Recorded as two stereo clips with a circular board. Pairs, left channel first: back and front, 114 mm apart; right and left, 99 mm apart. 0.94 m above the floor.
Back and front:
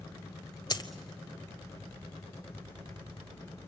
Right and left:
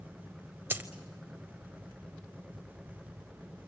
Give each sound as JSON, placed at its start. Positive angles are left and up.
{"t": 0.7, "sound": "a dropped coin", "azimuth_deg": 150, "distance_m": 0.9}